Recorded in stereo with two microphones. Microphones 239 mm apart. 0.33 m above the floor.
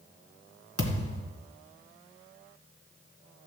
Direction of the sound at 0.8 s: 70° left (ahead or behind).